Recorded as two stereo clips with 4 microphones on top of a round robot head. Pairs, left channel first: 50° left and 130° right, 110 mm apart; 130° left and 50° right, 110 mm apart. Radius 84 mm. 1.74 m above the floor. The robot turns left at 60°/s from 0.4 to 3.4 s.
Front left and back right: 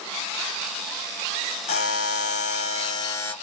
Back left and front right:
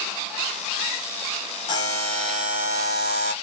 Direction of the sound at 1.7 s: 80° left.